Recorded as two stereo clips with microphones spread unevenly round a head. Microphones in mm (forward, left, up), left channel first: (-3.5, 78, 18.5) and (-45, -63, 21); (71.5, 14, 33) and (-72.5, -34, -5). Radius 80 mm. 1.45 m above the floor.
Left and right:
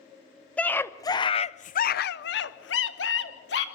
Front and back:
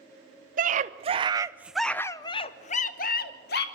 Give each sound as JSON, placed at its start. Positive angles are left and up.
{"t": 0.6, "sound": "a scream", "azimuth_deg": 155, "distance_m": 1.0}